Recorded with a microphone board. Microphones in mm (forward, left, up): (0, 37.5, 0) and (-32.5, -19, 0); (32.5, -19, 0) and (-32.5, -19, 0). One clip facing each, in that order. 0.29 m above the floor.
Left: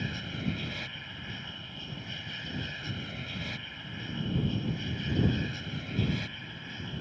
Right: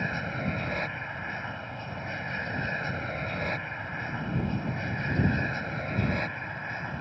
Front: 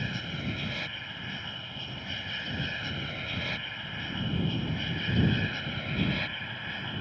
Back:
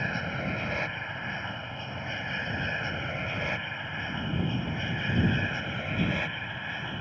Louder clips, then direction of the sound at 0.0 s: Right 5 dB, back 4 dB; 140° right.